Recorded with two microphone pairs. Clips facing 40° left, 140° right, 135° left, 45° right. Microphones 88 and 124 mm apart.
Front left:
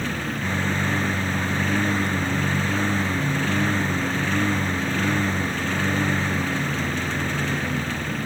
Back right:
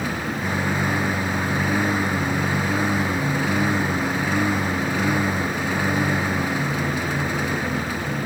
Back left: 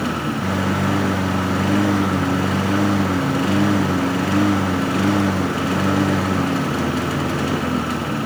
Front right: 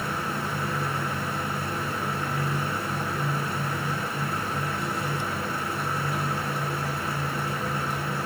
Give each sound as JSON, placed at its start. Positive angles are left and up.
{"t": 0.0, "sound": "a lawn mower", "azimuth_deg": 140}